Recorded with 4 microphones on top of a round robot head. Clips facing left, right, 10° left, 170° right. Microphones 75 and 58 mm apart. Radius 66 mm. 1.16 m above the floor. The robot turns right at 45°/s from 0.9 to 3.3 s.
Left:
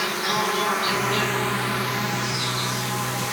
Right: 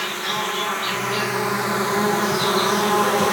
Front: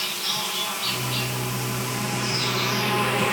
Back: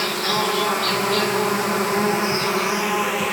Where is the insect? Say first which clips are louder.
Left 1 dB, back 9 dB; 170° left; by 3.3 s 80° right.